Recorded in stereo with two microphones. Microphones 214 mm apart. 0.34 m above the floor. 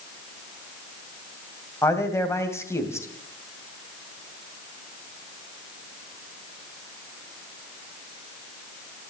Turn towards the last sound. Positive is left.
turn(degrees=10)  # may be behind; listen again after turning